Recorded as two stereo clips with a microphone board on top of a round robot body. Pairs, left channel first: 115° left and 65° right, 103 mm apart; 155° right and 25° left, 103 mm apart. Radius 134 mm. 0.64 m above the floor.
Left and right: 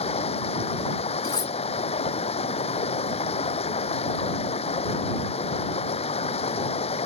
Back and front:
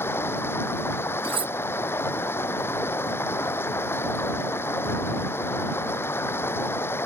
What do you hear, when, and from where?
0.0 s running water: 135° left
1.2 s cutlery clinking: 60° left